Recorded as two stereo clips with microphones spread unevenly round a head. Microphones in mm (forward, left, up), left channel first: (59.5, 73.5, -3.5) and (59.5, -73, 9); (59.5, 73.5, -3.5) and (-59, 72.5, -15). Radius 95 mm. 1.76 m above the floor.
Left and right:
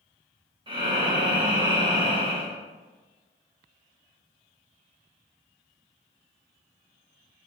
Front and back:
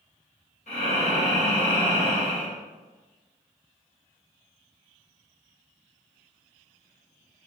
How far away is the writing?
I don't hear writing.